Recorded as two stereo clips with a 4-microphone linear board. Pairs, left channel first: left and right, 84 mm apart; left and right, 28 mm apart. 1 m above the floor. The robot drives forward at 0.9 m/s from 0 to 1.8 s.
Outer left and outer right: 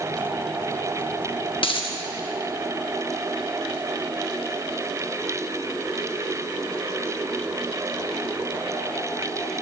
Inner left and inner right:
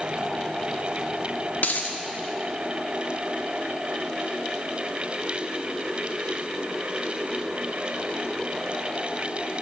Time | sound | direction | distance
1.6 | a dropped coin | 75° left (ahead or behind) | 1.0 m